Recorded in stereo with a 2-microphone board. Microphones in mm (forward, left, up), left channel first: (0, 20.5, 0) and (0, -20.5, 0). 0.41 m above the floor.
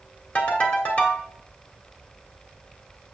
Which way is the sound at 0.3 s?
35° left (ahead or behind).